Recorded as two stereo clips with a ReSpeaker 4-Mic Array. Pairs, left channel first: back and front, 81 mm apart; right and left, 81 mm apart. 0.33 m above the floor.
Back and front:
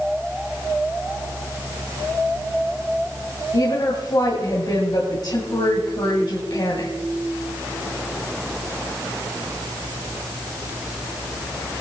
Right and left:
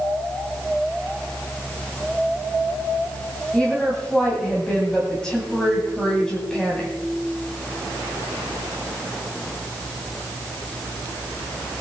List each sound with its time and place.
3.5 s a woman speaking: 170° right, 2 m